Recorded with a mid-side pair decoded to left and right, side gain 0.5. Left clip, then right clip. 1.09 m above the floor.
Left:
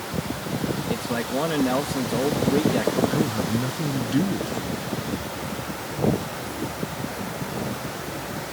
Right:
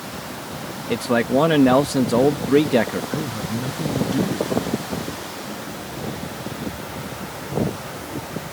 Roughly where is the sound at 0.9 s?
Ahead right.